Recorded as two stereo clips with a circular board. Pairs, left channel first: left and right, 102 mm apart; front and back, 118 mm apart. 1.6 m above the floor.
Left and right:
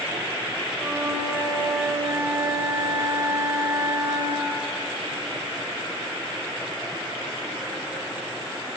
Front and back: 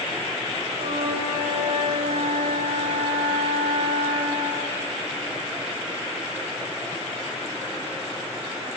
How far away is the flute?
About 6 m.